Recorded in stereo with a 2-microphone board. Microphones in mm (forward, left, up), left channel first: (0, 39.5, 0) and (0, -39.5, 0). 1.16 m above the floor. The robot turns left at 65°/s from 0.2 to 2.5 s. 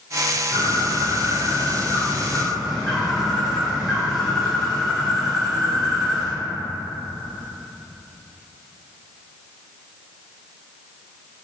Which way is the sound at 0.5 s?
45° right.